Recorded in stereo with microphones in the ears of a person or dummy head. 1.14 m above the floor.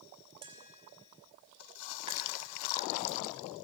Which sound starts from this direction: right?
Tapping, at 0.4 s.